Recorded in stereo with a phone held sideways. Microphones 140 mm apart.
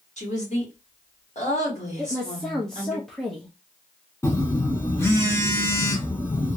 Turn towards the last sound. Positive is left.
turn(degrees=20)  # may be behind; listen again after turning